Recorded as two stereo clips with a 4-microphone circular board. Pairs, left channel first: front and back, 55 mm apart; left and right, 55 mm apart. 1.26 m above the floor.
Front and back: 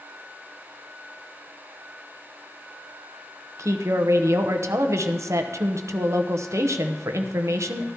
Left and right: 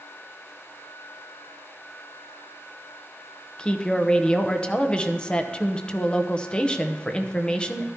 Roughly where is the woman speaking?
Behind.